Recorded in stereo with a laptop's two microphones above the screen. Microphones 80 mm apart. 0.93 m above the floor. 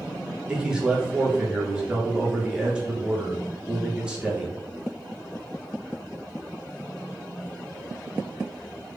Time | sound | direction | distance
0.5 | a man speaking | 10° right (ahead or behind) | 0.9 m